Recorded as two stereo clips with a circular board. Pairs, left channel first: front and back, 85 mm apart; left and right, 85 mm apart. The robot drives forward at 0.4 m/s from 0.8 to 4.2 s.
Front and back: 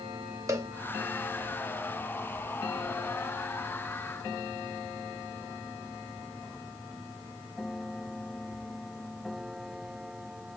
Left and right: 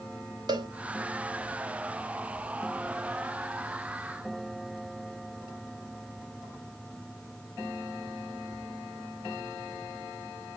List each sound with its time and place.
0.5 s a cowbell: 125° right, 0.6 m